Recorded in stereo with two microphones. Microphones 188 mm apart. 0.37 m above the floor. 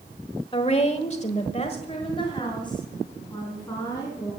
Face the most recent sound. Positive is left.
turn(degrees=20)  # may be behind; listen again after turning